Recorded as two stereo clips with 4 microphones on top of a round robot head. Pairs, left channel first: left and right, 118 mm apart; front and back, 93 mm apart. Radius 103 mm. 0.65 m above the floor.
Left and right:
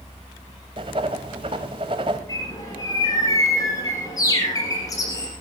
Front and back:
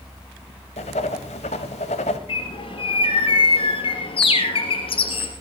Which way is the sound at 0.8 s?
30° right.